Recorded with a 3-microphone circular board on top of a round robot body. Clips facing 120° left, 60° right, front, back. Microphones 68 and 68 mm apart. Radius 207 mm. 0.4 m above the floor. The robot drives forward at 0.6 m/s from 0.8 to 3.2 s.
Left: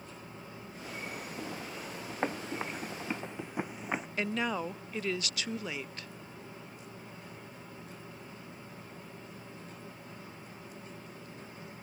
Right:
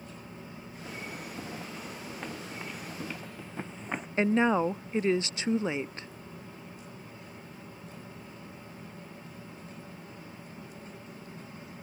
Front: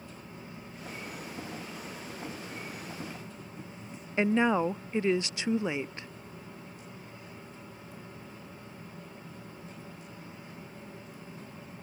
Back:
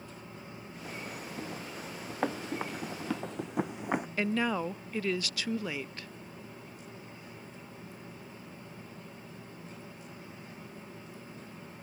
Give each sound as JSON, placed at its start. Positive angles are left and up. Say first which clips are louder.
{"t": 2.2, "sound": "running footsteps", "louder": "left 8 dB, back 11 dB", "azimuth_deg": 175}
{"t": 4.2, "sound": "a woman speaking", "louder": "right 10 dB, front 8 dB", "azimuth_deg": -45}